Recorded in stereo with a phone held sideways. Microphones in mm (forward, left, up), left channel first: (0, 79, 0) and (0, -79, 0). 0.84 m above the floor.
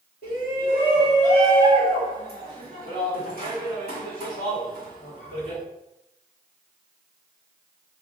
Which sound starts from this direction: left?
A shout, at 0.2 s.